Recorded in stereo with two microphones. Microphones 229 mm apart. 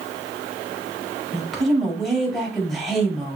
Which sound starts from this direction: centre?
A woman speaking, at 1.3 s.